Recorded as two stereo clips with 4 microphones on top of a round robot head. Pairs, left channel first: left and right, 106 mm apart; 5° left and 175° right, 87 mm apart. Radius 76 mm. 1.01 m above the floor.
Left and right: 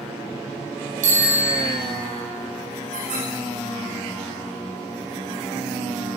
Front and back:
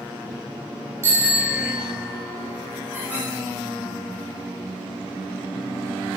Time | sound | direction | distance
1.0 | a bicycle bell | 105° right | 7 m
2.9 | a squeak | 95° right | 5.5 m